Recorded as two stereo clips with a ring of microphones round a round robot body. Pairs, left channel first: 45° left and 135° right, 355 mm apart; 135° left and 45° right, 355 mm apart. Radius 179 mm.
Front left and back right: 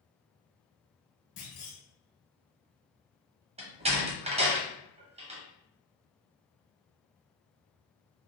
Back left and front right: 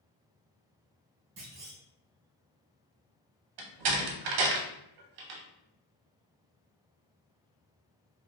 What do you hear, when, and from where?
1.4 s a clunk: 5° left, 1.6 m
3.6 s a door slam: 60° right, 0.8 m